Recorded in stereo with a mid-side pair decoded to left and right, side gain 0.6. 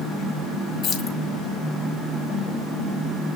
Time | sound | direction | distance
0.8 | keys jangling | 50° left | 1.9 m